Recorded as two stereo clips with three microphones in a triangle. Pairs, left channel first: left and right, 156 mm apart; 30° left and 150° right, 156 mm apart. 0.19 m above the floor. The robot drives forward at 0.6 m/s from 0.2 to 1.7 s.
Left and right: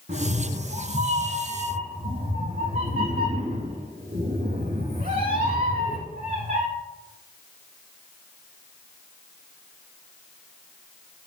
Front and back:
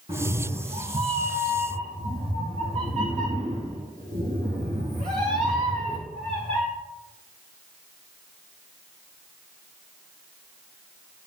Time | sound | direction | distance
0.1 | a cat meowing | 100° right | 4 m